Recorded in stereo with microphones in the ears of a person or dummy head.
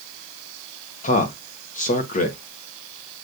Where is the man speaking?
45° left (ahead or behind), 1.0 m.